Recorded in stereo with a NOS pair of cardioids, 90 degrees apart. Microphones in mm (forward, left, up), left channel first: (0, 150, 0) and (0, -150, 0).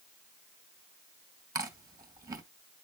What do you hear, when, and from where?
1.6 s chewing: 10° right, 2.5 m